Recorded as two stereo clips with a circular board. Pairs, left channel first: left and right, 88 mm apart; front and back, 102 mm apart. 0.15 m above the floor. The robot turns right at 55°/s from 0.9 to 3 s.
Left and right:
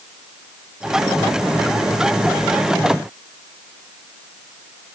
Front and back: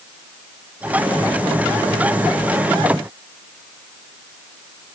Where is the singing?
I don't hear singing.